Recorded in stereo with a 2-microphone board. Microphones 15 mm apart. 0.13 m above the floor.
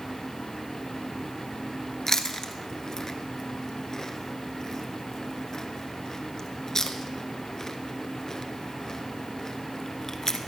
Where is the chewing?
40° left (ahead or behind), 1.0 m.